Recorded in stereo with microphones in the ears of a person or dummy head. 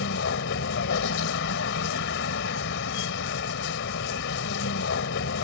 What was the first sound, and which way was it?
A vehicle, 65° left (ahead or behind).